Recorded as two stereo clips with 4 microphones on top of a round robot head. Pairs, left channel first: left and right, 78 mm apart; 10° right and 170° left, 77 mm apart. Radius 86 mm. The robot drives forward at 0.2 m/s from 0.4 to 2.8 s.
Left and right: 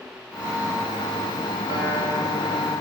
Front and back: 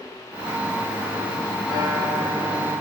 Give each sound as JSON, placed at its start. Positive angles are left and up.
{"t": 1.7, "sound": "a guitar", "azimuth_deg": -150, "distance_m": 3.0}